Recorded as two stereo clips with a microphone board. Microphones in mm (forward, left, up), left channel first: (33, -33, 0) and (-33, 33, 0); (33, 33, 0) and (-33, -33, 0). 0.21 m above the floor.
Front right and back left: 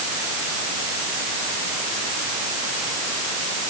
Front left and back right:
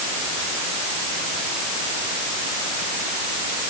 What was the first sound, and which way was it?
Only background noise.